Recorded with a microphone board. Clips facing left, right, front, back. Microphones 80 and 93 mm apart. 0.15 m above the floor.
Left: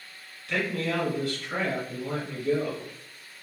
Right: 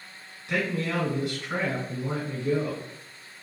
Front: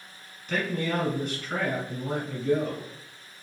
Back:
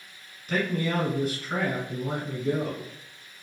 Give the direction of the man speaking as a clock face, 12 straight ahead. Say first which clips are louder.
Right 1 dB, back 1 dB; 3 o'clock.